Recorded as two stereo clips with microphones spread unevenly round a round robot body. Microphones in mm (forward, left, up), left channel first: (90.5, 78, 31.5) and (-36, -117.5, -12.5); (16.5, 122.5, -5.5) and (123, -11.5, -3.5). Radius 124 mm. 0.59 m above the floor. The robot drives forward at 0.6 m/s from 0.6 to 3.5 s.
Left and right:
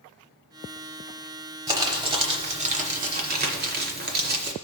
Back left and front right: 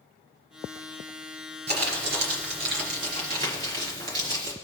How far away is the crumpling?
About 1.8 m.